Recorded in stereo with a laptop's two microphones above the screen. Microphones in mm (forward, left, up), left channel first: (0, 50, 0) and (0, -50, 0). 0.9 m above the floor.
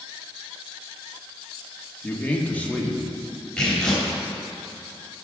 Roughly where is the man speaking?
Centre.